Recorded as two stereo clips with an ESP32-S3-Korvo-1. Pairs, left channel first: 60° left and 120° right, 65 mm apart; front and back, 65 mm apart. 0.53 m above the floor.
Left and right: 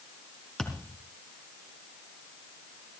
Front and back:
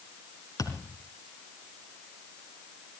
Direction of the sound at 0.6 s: 20° right.